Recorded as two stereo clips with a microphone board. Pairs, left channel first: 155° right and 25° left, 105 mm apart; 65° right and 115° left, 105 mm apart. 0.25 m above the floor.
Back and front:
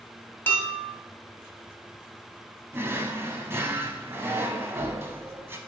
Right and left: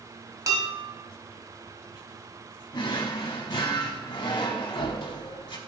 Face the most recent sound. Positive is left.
turn(degrees=-40)